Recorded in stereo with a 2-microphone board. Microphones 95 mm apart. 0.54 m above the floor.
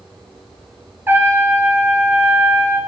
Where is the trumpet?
25° right (ahead or behind), 1.8 m.